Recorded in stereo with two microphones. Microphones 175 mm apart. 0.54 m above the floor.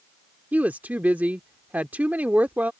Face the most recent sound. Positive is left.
turn(degrees=-10)  # may be behind; listen again after turning